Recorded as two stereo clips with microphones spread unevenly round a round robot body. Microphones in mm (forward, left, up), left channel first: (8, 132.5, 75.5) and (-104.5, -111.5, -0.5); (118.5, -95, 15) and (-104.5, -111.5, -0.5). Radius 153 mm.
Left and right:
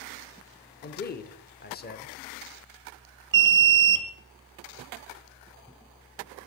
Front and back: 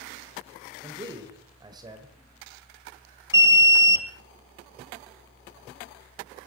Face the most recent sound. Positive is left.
turn(degrees=-100)